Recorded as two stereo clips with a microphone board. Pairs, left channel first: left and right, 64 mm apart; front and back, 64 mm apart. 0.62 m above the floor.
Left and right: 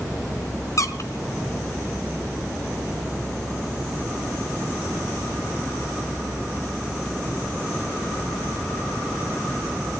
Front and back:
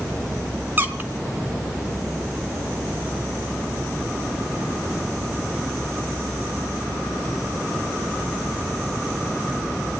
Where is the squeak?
120° left, 1.6 m.